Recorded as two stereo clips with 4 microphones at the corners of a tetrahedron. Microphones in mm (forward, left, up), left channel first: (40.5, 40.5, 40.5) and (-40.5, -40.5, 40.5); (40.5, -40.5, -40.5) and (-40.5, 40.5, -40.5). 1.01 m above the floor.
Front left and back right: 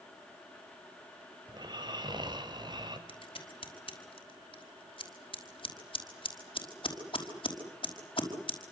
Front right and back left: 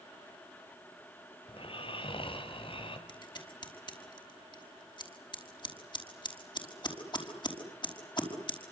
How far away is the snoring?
About 3.5 m.